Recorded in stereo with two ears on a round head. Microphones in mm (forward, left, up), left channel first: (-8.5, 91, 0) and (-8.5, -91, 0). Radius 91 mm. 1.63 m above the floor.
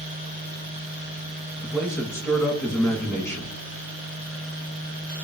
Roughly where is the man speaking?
Centre.